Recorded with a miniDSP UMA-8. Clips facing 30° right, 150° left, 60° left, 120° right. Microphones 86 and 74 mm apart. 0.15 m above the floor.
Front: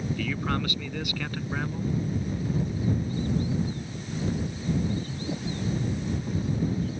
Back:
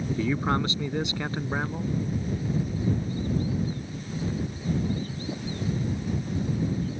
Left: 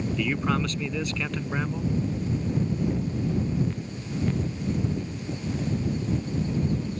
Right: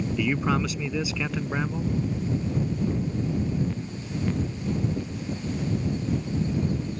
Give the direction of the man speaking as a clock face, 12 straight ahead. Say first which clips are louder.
Back 7 dB, right 2 dB; 6 o'clock.